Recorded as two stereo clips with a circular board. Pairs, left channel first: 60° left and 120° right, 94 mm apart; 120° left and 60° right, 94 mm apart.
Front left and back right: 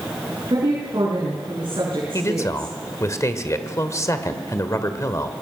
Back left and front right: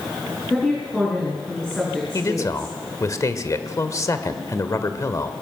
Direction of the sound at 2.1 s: 90° left.